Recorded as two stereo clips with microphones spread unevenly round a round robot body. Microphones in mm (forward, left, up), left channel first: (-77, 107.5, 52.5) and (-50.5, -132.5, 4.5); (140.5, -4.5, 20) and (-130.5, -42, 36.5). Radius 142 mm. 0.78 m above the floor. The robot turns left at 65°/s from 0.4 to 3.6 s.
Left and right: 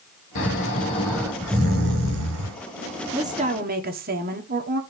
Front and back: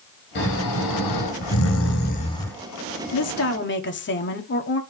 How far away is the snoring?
About 3 m.